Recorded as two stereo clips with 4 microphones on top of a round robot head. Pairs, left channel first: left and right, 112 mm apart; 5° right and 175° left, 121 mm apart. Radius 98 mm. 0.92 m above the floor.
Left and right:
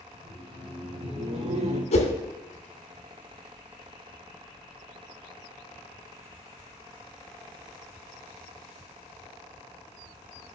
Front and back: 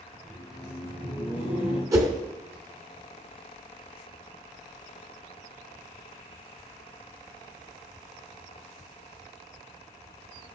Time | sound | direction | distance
0.1 | laughter | 130° right | 4.5 m
1.9 | a whoosh | 110° left | 2.5 m